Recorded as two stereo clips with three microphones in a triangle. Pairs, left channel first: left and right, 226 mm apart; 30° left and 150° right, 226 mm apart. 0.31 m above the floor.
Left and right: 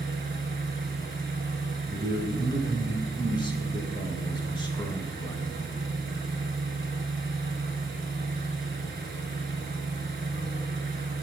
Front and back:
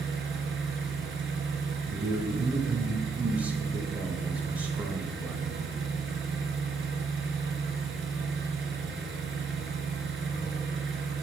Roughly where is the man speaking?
Behind left.